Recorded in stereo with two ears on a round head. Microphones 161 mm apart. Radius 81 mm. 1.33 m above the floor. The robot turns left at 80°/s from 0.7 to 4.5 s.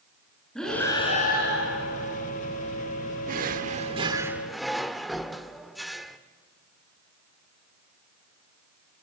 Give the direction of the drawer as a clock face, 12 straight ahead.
3 o'clock.